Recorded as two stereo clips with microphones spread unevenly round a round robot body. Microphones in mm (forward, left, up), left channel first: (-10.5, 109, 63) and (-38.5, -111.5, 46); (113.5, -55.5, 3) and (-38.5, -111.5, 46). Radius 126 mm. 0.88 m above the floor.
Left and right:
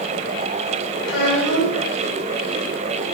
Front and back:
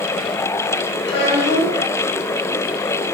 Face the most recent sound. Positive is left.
turn(degrees=45)